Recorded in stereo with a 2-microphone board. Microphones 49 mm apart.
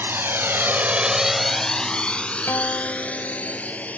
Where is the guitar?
60° left (ahead or behind).